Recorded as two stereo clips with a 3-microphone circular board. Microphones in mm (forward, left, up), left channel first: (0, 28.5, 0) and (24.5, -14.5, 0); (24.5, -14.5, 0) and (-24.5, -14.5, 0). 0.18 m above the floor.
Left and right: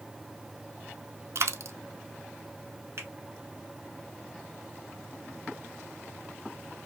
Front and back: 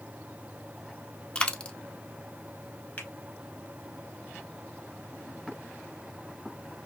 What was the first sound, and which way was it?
A dropped coin, 70° right.